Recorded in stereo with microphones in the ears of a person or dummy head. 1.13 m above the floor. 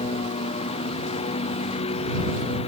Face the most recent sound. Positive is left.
turn(degrees=25)  # may be behind; listen again after turning